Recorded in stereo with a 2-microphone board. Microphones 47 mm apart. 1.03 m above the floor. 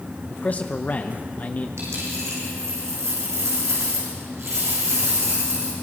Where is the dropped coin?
85° right, 7.5 m.